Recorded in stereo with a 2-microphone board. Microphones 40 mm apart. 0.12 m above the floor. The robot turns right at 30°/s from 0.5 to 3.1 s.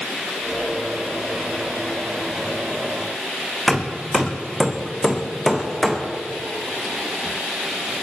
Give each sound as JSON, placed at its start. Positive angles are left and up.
{"t": 3.7, "sound": "hammering", "side_deg": 0, "distance_m": 1.9}